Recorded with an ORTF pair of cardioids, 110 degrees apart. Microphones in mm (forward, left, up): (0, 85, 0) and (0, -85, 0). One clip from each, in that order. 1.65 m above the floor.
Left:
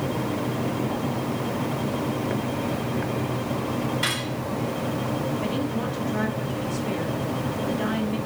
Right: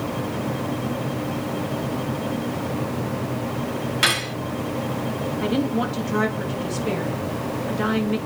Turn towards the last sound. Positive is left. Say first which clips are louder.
# right 4 dB
turn(degrees=-50)